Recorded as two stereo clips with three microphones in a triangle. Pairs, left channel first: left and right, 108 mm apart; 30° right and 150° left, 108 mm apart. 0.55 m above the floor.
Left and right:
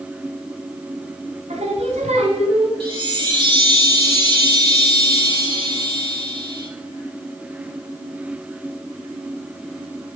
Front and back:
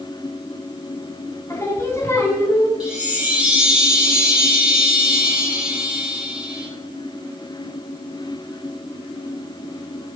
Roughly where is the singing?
Right.